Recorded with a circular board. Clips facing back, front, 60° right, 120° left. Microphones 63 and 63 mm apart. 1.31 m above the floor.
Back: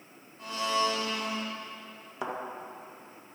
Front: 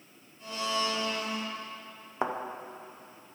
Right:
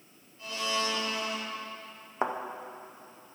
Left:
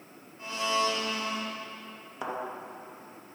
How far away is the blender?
About 2 m.